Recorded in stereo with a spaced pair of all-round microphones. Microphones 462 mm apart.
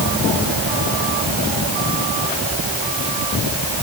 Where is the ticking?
No ticking in this recording.